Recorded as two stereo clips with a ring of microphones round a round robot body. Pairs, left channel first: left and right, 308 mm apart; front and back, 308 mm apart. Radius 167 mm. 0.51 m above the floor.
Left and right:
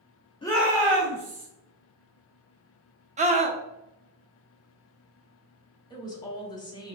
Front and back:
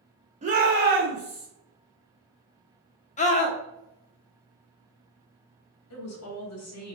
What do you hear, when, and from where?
0.4 s a shout: 145° left, 0.8 m; by 1.5 s 125° right, 1.6 m
3.2 s a scream: 45° right, 0.7 m
5.9 s a woman speaking: 15° left, 1.2 m